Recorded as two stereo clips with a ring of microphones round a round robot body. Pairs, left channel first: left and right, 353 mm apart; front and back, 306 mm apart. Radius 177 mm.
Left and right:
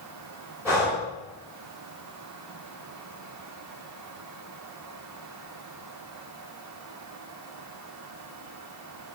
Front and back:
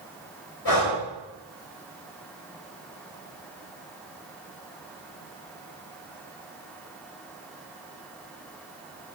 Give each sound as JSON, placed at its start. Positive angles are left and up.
{"t": 0.7, "sound": "breathing", "azimuth_deg": -10, "distance_m": 3.5}